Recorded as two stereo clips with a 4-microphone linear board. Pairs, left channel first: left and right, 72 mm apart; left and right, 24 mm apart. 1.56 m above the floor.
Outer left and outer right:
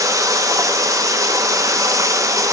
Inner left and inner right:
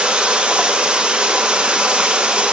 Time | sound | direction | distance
0.0 | running water | 50° right (ahead or behind) | 0.9 m